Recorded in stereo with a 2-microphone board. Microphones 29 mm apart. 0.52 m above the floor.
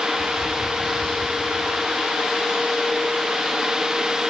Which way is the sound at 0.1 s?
10° right (ahead or behind).